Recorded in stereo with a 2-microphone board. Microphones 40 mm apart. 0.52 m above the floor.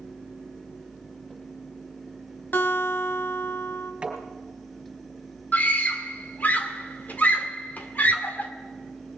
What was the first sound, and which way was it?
A guitar, 60° left (ahead or behind).